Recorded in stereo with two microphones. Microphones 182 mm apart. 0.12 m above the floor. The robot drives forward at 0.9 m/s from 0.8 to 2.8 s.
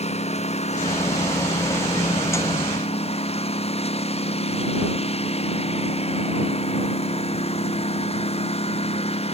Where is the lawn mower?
40° left (ahead or behind); by 9.3 s 35° left (ahead or behind).